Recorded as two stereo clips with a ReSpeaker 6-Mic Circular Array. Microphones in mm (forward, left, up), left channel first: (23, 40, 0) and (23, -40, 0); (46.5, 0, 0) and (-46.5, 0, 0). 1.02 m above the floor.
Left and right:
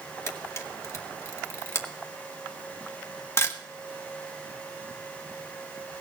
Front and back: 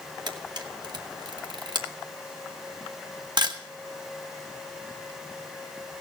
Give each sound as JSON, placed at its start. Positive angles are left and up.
{"t": 0.3, "sound": "a camera shutter", "azimuth_deg": 145, "distance_m": 1.3}